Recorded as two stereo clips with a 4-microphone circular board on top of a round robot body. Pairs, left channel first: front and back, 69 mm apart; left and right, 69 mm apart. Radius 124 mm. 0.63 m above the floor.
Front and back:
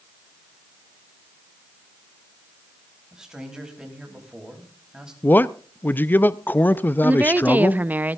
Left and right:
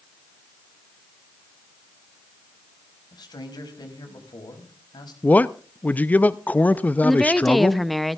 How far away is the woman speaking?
About 0.9 m.